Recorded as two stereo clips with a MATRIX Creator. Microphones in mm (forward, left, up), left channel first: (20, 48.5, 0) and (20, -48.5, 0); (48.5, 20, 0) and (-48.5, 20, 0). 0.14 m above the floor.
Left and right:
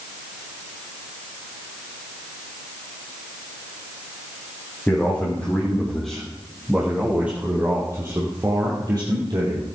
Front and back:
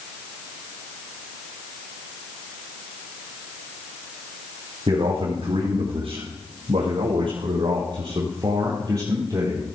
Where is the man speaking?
160° left, 4.5 m; by 9.6 s 125° right, 4 m.